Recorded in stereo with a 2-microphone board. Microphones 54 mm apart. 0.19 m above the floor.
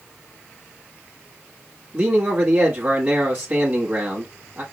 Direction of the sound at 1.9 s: 30° right (ahead or behind).